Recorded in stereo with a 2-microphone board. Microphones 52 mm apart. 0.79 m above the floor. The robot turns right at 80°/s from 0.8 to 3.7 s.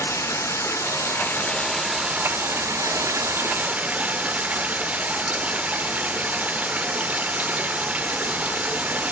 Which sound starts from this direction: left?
Running water, at 0.0 s.